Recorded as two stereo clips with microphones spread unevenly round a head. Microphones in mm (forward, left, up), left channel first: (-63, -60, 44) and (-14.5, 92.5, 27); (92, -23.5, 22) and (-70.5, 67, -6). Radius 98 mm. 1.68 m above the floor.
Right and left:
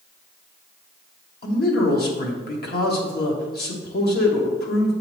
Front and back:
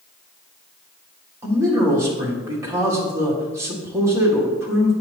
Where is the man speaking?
130° right, 1.5 m.